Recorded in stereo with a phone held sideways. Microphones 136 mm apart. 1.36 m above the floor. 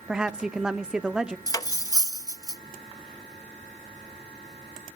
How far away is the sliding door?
No sliding door in this recording.